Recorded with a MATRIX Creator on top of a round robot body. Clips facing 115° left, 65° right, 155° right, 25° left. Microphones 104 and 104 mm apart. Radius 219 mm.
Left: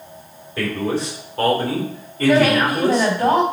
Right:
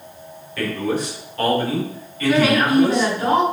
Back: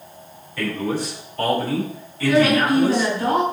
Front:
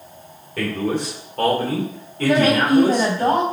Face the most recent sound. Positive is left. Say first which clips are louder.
# left 1 dB, front 1 dB
turn(degrees=60)